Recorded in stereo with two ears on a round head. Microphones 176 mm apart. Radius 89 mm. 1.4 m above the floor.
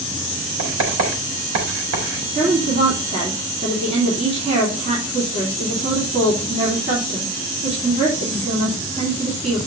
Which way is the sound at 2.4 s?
30° right (ahead or behind).